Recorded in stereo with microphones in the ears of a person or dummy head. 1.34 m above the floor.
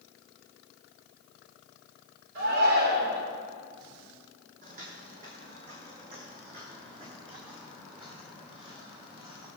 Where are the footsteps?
45° right (ahead or behind), 3 m; by 9.5 s 25° right (ahead or behind), 6 m.